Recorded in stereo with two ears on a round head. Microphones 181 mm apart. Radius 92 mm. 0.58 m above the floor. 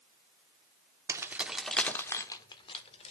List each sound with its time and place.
1.1 s keys jangling: 15° right (ahead or behind), 1.0 m; by 3.1 s 30° left (ahead or behind), 1.5 m